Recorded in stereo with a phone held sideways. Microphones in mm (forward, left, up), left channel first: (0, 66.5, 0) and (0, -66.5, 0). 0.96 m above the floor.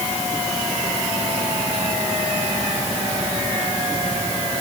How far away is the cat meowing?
No cat meowing in this recording.